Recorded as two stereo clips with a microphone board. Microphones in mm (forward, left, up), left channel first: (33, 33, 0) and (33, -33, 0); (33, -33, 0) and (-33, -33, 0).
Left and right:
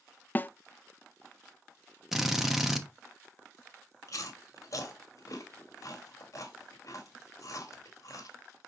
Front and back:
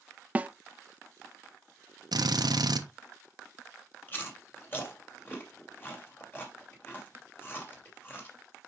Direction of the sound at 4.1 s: 60° left.